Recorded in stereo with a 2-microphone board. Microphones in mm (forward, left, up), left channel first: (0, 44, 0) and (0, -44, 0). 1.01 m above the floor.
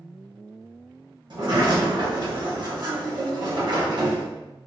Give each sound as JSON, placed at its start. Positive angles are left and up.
{"t": 1.3, "sound": "a sliding door", "side_deg": -55, "distance_m": 1.0}